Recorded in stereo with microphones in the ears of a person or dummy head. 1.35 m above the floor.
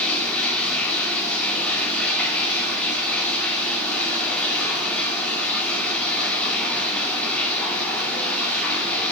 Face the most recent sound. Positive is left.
turn(degrees=15)  # may be behind; listen again after turning